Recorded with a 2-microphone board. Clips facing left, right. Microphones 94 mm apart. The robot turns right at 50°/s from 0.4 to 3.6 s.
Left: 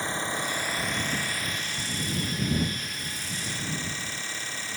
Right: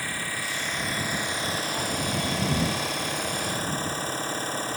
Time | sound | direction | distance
0.0 | an engine running | 155° left | ?